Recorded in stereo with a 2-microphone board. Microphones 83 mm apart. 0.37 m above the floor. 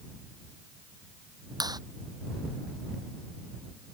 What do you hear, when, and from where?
1.6 s a clap: 60° right (ahead or behind)